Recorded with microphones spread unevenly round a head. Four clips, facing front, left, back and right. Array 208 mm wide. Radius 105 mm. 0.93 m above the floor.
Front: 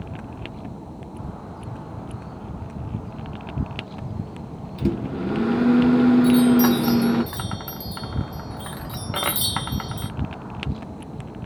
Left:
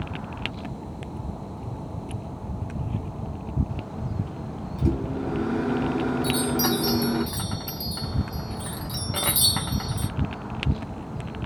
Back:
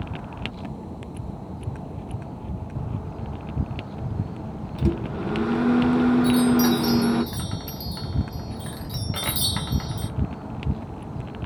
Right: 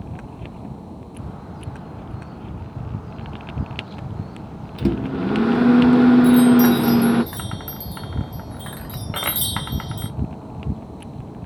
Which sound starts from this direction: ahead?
A chime, at 6.2 s.